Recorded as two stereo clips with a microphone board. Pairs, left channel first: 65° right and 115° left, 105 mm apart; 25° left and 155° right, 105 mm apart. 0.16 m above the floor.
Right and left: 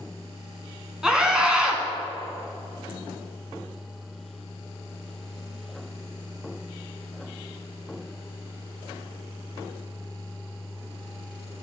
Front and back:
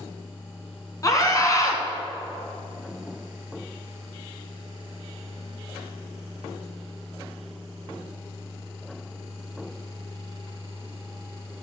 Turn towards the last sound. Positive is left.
turn(degrees=35)